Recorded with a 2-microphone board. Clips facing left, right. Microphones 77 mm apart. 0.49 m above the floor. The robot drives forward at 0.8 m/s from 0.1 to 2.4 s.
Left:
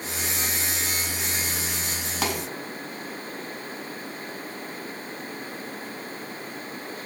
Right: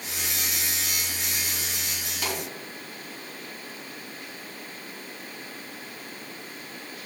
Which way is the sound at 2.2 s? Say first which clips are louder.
Left 4 dB; 80° left.